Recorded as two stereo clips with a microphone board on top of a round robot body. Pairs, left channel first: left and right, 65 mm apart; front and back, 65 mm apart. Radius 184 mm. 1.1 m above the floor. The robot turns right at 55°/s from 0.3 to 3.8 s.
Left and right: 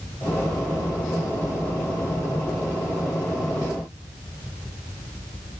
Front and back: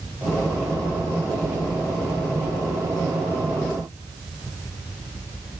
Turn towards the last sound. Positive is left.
No sound to turn to.